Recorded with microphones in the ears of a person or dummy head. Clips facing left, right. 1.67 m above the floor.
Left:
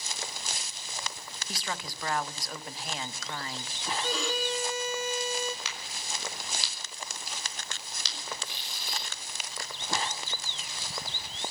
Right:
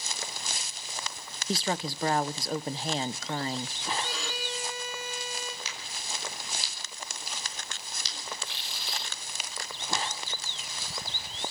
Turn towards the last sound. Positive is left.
turn(degrees=10)  # may be behind; listen again after turning